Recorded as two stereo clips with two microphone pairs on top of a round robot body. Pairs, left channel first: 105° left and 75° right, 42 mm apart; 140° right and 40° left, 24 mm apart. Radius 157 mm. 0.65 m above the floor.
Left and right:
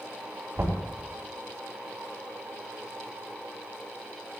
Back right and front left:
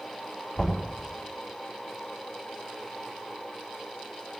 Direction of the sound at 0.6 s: 110° right.